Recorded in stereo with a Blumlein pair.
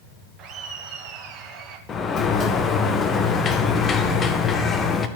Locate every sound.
0.4 s laughter: 30° right, 2 m
1.9 s a sliding door: 20° left, 1.0 m